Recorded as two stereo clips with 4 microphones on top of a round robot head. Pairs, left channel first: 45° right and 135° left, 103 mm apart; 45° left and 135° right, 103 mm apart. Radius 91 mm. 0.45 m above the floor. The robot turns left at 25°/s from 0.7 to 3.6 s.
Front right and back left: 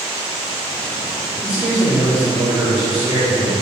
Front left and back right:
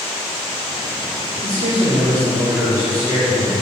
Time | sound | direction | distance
1.4 | a man speaking | 150° right | 2 m